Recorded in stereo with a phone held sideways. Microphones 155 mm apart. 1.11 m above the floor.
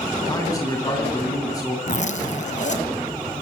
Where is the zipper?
50° left (ahead or behind), 2 m.